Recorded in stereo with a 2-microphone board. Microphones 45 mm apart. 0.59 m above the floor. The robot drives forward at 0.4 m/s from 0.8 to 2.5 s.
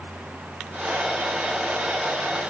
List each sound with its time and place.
Only background noise.